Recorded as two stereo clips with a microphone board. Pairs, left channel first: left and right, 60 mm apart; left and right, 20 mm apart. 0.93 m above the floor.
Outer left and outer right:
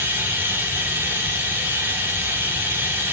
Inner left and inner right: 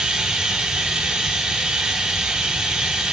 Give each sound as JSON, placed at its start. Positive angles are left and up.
{"t": 0.0, "sound": "running water", "side_deg": -35, "distance_m": 1.8}